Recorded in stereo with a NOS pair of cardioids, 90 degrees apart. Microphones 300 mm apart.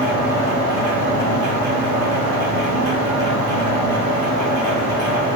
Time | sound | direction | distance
0.0 | a machine running | 60° right | 1.6 m